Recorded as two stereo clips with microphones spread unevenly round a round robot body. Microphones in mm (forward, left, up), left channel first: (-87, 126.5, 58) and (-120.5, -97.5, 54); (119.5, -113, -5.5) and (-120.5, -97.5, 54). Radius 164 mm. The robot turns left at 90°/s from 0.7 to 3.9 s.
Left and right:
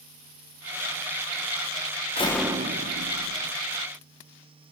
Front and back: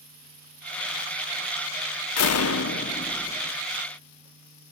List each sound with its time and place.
2.2 s a door slam: 15° left, 1.4 m; by 3.5 s 110° right, 1.4 m